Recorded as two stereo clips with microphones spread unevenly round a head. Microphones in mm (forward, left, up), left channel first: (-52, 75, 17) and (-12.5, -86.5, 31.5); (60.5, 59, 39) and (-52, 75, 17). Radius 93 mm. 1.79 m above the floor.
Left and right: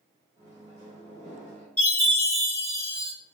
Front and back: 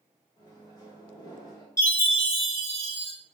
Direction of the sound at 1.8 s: 20° left.